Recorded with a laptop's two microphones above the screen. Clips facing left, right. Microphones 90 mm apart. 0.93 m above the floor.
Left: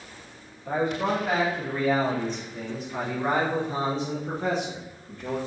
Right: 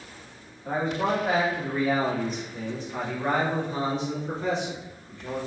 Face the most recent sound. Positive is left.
turn(degrees=50)  # may be behind; listen again after turning